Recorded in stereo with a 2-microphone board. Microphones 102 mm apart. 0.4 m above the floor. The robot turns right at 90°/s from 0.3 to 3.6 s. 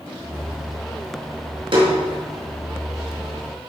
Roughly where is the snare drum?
Right.